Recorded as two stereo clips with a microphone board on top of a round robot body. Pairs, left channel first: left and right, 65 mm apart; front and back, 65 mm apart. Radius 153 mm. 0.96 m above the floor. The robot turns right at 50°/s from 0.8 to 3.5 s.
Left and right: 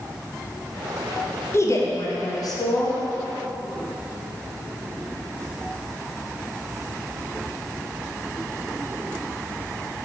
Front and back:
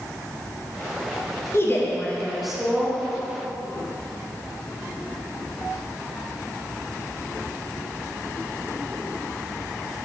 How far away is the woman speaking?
About 1.8 m.